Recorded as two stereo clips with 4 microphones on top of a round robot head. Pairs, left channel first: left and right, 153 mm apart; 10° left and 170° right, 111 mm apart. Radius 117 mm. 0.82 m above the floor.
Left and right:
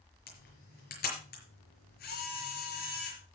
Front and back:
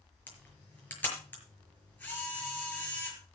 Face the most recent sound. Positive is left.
turn(degrees=85)